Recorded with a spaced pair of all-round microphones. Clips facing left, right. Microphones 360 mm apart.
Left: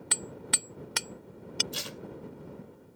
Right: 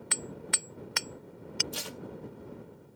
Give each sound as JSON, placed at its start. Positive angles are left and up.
{"t": 0.1, "sound": "hammering", "side_deg": 50}
{"t": 1.7, "sound": "tape being pulled", "side_deg": -65}